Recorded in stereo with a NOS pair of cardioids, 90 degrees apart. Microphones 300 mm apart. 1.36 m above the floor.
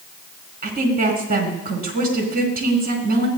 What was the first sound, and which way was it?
A woman speaking, 30° right.